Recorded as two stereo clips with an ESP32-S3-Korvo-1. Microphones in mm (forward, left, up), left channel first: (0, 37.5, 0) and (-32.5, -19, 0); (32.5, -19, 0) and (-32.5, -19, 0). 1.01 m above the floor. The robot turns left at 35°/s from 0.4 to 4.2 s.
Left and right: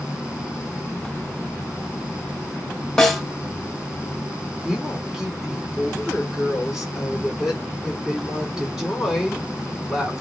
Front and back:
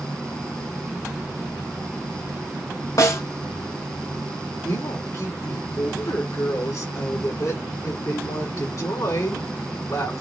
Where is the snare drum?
20° right, 1.3 m; by 3.2 s 25° right, 1.3 m.